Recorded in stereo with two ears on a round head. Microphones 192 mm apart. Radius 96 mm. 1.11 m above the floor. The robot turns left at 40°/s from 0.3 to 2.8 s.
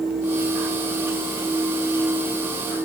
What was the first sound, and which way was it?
Only background noise.